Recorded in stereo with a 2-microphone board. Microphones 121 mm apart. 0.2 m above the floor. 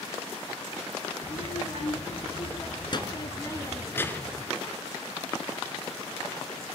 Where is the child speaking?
65° left (ahead or behind), 2.5 m; by 4.5 s 10° left (ahead or behind), 2.5 m.